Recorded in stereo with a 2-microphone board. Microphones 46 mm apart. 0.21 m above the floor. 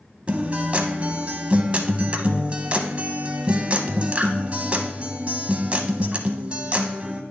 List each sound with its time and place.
0.3 s a guitar: 30° right (ahead or behind), 0.7 m